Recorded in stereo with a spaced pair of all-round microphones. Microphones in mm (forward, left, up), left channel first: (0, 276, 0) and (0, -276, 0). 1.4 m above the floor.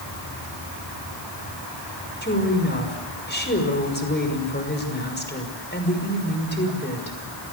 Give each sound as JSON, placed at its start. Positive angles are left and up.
{"t": 2.2, "sound": "a woman speaking", "side_deg": 20, "distance_m": 5.5}